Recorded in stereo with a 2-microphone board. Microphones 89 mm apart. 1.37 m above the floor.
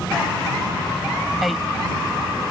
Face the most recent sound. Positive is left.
turn(degrees=0)  # may be behind; listen again after turning